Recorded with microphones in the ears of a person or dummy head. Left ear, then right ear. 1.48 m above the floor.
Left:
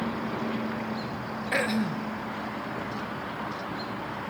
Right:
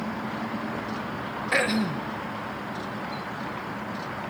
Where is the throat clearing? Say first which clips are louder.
Right 3 dB; 10° right (ahead or behind), 1.1 m.